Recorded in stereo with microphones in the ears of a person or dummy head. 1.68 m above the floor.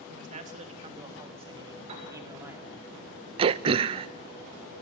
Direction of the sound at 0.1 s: 50° right (ahead or behind).